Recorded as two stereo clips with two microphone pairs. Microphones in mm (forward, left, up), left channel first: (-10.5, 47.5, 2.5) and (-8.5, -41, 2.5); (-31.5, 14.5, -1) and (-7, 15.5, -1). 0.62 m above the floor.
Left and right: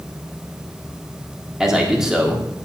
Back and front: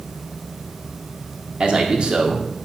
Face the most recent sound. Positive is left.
turn(degrees=-10)